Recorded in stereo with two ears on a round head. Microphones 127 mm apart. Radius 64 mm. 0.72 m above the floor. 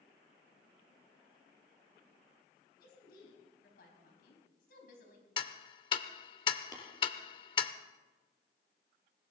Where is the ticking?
35° left (ahead or behind), 0.7 m.